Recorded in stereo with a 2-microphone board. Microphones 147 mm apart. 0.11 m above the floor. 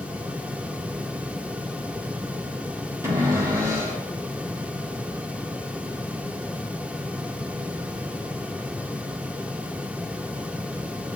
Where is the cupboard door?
20° right (ahead or behind), 3 m.